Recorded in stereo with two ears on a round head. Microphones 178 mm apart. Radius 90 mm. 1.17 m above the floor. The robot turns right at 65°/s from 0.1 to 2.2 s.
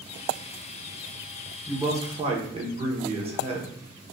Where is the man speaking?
Straight behind, 1.0 m; by 3.8 s 145° right, 1.0 m.